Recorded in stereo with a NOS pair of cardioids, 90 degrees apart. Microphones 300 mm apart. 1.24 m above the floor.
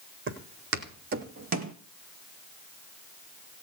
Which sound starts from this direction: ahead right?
Footsteps, at 0.3 s.